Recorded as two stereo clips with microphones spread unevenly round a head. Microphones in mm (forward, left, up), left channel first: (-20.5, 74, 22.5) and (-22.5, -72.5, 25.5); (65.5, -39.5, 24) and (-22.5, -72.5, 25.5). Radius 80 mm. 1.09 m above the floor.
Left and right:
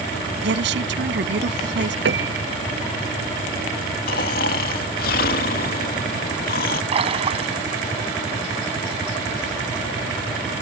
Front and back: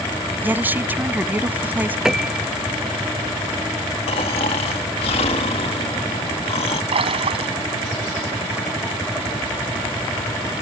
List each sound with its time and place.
0.4 s a woman speaking: 90° right
2.0 s a piano: 75° right
4.1 s snoring: 60° left
6.9 s a splash: 140° right